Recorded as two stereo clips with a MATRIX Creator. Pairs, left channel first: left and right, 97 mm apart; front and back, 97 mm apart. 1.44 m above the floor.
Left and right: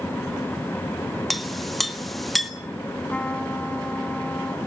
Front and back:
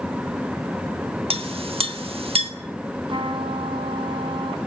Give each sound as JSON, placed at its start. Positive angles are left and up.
{"t": 1.3, "sound": "a clink", "azimuth_deg": 175, "distance_m": 1.6}
{"t": 3.1, "sound": "a trumpet", "azimuth_deg": 165, "distance_m": 3.0}